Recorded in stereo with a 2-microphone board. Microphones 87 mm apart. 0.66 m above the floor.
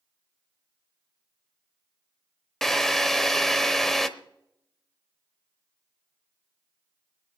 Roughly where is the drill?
Centre.